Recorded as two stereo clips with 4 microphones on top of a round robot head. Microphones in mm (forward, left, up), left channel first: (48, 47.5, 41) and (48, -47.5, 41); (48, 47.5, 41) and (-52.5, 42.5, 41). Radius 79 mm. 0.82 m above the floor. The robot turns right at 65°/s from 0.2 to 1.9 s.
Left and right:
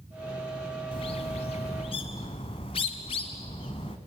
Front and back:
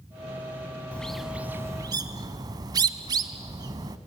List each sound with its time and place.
0.9 s a bird: 75° left, 1.0 m; by 4.0 s 140° left, 1.0 m